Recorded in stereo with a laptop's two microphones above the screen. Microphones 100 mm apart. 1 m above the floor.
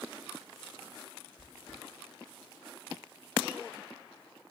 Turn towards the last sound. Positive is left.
turn(degrees=30)  # may be behind; listen again after turning